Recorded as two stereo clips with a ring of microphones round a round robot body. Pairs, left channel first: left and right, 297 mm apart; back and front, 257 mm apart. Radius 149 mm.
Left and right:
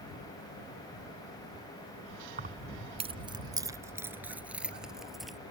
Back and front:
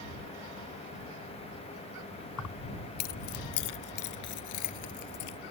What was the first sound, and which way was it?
Keys jangling, 150° right.